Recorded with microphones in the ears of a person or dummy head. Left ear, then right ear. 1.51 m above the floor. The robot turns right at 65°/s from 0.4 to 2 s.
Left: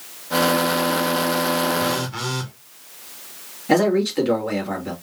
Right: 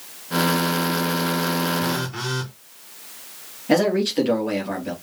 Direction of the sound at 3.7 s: Centre (ahead or behind).